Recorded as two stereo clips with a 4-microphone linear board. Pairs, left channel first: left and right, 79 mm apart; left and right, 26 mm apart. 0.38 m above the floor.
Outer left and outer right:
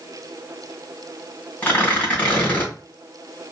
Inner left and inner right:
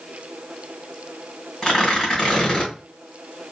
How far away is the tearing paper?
About 2.5 m.